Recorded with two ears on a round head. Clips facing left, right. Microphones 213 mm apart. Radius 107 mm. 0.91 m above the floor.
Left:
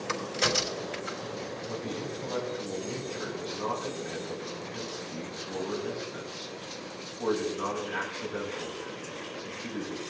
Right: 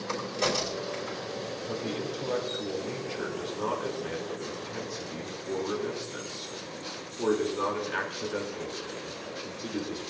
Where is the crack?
20° left (ahead or behind), 3 m.